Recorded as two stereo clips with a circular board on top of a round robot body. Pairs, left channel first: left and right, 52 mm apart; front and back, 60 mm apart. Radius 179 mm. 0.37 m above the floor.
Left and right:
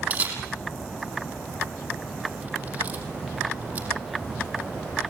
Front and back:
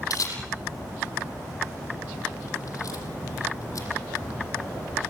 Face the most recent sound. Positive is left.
turn(degrees=-30)